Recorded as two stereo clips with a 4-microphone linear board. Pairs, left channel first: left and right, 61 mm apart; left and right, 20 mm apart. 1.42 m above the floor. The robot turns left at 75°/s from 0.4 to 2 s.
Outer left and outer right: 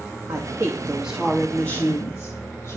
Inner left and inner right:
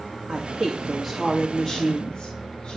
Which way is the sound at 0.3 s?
115° right.